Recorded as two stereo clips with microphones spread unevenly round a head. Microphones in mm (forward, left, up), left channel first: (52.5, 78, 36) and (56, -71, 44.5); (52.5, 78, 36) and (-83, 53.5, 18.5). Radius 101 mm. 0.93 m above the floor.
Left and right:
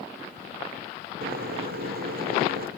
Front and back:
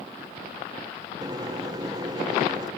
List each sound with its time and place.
1.2 s a microwave: 110° right, 1.4 m